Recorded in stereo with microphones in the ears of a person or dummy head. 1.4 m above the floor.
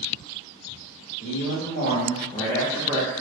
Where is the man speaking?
60° left (ahead or behind), 0.9 m; by 3.2 s 25° right (ahead or behind), 0.6 m.